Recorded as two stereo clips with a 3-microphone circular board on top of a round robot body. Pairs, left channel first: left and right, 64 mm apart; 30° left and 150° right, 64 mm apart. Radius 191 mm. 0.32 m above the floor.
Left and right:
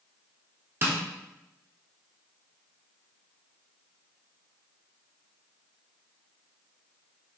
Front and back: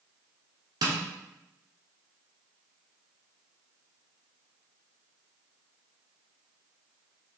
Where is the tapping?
145° right, 1.2 m.